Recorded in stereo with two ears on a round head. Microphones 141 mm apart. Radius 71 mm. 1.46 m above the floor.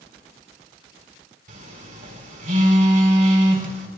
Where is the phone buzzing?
60° right (ahead or behind), 4 m.